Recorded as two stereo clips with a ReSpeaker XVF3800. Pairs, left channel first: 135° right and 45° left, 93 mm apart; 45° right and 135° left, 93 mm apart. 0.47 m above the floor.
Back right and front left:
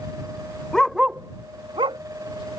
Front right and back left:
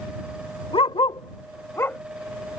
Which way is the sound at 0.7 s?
55° right.